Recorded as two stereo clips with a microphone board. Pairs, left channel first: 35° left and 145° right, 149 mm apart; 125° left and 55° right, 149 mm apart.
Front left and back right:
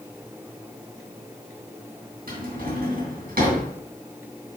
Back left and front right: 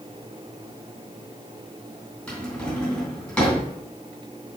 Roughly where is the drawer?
Behind right.